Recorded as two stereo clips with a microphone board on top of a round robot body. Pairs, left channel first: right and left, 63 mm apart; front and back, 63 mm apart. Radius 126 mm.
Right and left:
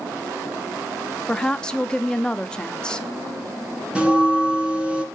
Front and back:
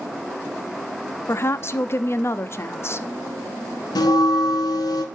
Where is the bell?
15° left, 2.0 m.